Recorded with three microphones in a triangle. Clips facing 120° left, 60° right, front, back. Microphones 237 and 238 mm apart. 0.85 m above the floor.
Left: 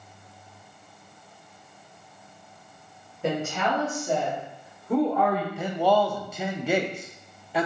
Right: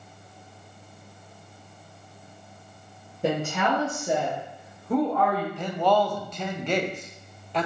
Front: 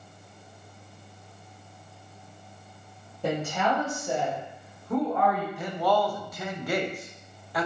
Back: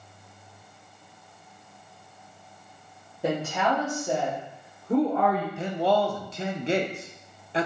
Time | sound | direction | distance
3.2 | a woman speaking | 100° right | 1.4 m
5.6 | a man speaking | 170° right | 0.5 m